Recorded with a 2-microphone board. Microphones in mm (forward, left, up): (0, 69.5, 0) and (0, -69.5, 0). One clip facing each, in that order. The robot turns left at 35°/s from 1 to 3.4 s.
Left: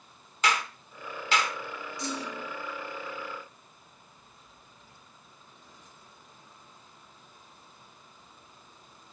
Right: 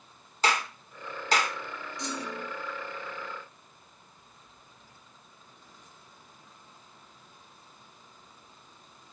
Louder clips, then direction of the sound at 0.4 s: Right 1 dB; 35° right (ahead or behind).